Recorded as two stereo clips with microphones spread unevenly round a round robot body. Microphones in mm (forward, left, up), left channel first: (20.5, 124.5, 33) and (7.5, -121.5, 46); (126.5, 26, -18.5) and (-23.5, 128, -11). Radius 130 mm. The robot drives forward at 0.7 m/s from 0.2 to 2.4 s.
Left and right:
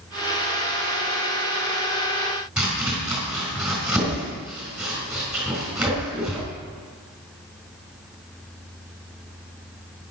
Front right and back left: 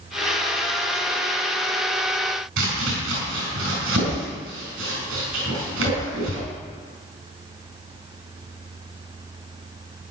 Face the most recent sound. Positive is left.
turn(degrees=180)